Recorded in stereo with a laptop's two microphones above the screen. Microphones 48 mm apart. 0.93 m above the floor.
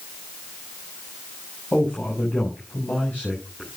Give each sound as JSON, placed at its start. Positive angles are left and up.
{"t": 1.7, "sound": "a man speaking", "side_deg": 35, "distance_m": 8.0}